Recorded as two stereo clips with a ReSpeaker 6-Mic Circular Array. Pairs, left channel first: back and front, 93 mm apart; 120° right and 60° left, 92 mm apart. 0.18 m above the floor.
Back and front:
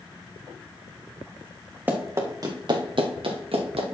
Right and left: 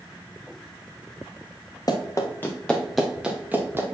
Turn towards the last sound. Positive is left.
turn(degrees=-5)